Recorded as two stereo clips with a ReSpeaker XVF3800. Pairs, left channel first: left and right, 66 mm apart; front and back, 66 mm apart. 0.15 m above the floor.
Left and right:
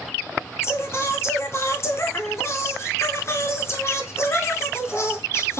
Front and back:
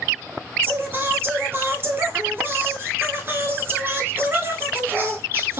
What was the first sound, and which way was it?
Singing, 130° left.